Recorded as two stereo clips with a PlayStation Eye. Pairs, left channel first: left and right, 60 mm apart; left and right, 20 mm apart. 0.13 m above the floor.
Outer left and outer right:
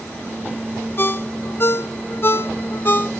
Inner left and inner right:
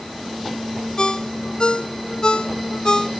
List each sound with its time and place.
1.0 s a ringtone: 40° left (ahead or behind), 0.6 m